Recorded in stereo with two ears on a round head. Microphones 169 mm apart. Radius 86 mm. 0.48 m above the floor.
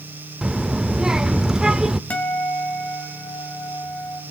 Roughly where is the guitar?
Centre.